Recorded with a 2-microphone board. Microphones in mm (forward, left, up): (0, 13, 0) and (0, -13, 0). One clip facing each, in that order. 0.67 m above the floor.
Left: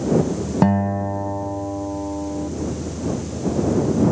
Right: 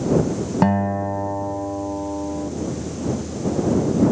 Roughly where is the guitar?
Centre.